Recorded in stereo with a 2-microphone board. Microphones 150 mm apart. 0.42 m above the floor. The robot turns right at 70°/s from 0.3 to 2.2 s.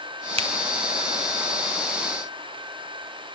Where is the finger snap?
40° right (ahead or behind), 1.8 m; by 0.5 s 35° right (ahead or behind), 1.8 m.